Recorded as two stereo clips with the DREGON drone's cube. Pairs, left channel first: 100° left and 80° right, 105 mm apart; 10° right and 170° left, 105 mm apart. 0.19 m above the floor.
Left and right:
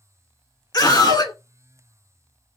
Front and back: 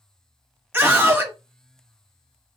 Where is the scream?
110° left, 1.2 m.